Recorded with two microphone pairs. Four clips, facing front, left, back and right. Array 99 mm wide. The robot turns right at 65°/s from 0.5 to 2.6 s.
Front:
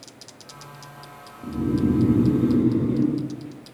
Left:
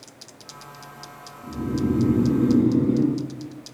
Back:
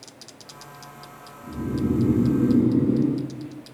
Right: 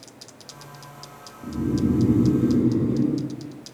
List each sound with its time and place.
1.4 s snoring: straight ahead, 4.5 m; by 3.2 s 75° left, 4.5 m